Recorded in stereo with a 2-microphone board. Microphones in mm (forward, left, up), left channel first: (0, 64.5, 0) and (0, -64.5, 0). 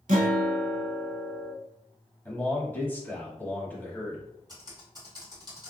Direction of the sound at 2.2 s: 15° left (ahead or behind).